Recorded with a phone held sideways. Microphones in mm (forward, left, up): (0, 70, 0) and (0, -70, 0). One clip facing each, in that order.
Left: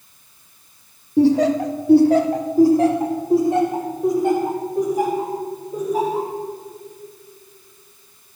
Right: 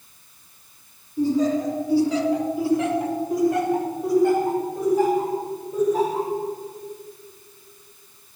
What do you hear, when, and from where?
1.2 s laughter: 70° left (ahead or behind), 0.8 m; by 6.3 s 10° left (ahead or behind), 3 m